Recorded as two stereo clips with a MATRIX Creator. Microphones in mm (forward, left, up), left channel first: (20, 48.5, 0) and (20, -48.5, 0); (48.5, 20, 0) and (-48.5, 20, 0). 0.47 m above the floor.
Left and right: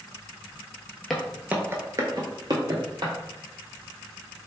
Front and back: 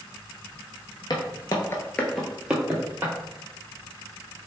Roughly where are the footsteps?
Ahead.